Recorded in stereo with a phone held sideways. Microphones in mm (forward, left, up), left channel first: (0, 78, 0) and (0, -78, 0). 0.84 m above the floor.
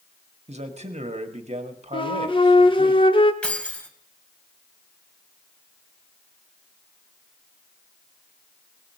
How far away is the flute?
About 0.9 m.